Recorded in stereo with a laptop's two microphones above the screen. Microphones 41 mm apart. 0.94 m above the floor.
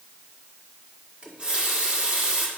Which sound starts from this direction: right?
A running tap, at 1.2 s.